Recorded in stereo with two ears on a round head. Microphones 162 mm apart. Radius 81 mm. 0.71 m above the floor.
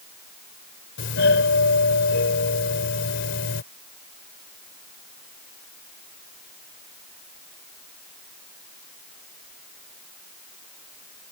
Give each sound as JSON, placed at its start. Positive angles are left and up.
{"t": 1.0, "sound": "a doorbell", "side_deg": 65}